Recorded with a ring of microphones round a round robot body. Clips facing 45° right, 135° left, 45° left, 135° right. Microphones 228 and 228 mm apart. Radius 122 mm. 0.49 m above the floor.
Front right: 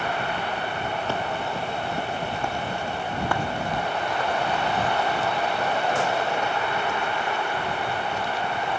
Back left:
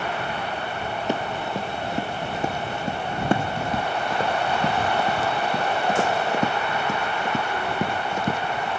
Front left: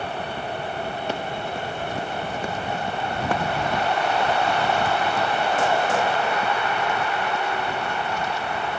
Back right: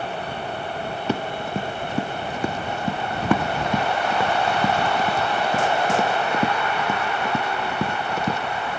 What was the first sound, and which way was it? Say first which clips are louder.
Running footsteps: back left 2 dB, back right 3 dB; 150° right.